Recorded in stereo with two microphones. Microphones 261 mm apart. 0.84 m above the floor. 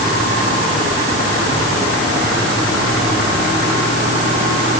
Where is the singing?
I don't hear singing.